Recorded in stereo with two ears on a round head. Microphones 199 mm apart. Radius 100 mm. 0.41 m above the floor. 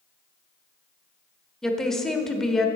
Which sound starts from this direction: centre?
A woman speaking, at 1.6 s.